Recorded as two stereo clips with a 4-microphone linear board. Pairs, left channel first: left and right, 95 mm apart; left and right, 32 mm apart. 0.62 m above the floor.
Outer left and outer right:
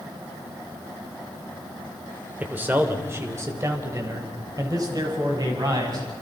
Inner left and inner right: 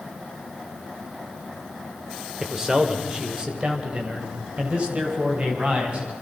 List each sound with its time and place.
2.4 s a man speaking: 15° right (ahead or behind), 2.5 m; by 6.1 s 45° right (ahead or behind), 6.5 m